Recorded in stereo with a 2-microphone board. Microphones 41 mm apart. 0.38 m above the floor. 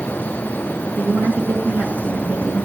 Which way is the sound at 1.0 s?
45° right (ahead or behind).